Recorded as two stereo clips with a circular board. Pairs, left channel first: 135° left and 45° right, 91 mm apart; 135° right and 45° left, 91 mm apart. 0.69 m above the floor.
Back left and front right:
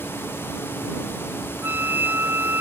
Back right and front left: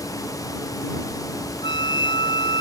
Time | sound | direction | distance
1.6 | a flute | 110° right | ?